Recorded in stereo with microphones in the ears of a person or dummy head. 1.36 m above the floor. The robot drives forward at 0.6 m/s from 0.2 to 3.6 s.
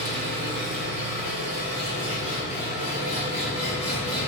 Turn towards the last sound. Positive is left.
turn(degrees=-25)  # may be behind; listen again after turning